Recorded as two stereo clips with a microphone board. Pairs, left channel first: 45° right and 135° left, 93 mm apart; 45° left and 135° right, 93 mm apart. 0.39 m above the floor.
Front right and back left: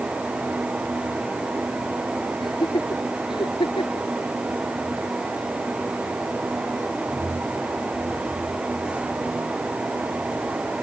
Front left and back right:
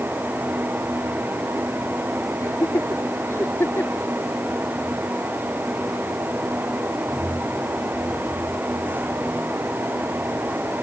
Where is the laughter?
10° right; by 4.1 s 25° right.